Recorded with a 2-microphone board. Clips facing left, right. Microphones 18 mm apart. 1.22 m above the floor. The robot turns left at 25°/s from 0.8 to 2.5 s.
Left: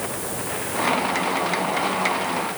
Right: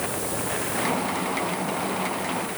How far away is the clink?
I don't hear a clink.